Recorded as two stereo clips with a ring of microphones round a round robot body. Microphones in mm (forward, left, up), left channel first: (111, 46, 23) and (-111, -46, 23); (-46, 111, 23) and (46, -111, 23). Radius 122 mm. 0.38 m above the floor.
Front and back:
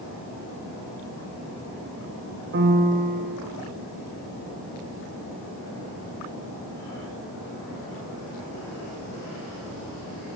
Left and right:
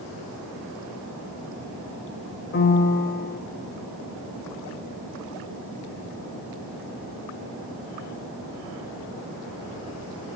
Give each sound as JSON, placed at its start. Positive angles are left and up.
{"t": 2.5, "sound": "a piano", "azimuth_deg": 155, "distance_m": 0.6}